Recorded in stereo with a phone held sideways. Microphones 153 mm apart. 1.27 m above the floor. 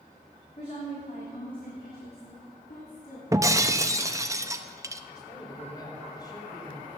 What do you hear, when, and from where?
0.6 s a woman speaking: 40° left (ahead or behind), 3.5 m; by 3.2 s 70° left (ahead or behind), 4 m
3.3 s breaking glass: 20° right (ahead or behind), 0.8 m
5.1 s a man speaking: 25° left (ahead or behind), 3.5 m